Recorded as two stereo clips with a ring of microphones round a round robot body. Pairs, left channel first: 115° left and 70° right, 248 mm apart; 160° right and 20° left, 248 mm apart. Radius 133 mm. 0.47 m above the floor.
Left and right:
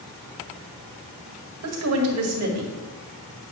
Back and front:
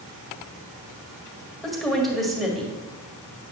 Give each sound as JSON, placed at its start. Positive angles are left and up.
{"t": 1.6, "sound": "a woman speaking", "azimuth_deg": -70, "distance_m": 1.9}